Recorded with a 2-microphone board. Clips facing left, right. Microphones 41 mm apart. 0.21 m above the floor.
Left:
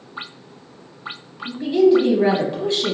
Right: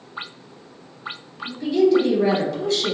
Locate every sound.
1.4 s a woman speaking: 25° left (ahead or behind), 1.0 m